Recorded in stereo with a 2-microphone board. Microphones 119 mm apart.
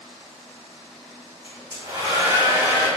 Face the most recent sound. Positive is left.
turn(degrees=-15)  # may be behind; listen again after turning